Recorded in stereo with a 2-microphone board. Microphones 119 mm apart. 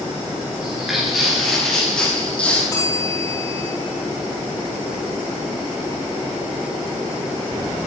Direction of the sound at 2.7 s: 25° left (ahead or behind).